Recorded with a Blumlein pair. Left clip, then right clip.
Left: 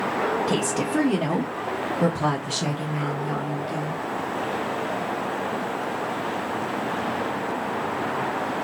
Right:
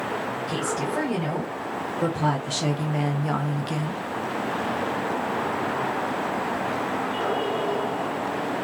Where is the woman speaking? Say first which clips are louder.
Left 2 dB; 40° left, 1.5 m; by 4.0 s 50° right, 1.0 m.